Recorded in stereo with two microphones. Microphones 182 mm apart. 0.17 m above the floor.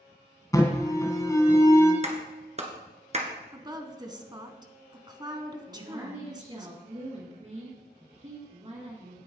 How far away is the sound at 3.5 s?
About 1.3 m.